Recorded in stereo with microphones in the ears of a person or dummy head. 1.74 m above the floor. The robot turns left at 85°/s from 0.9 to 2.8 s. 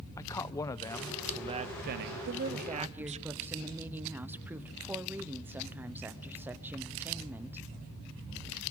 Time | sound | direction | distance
0.2 | a man speaking | 20° left | 0.7 m
2.3 | a woman speaking | 125° right | 0.9 m